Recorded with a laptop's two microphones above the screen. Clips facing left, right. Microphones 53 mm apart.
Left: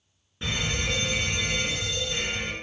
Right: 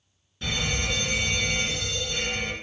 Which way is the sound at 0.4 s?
25° left (ahead or behind).